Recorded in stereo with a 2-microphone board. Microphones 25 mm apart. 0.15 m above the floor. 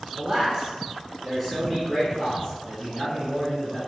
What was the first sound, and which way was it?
A man speaking, 15° right (ahead or behind).